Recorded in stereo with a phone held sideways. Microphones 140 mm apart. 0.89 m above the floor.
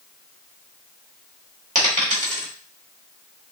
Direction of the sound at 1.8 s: 70° right (ahead or behind).